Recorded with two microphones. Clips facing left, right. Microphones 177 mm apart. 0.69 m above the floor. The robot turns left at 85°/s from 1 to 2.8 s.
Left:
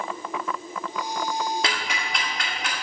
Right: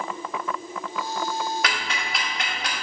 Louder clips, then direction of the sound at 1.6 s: Even; 30° left (ahead or behind).